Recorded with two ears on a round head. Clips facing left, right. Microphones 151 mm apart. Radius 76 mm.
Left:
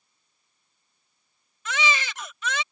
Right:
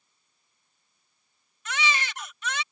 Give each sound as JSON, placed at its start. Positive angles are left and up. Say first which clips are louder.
{"t": 1.6, "sound": "a baby crying", "louder": "left 3 dB", "side_deg": 65}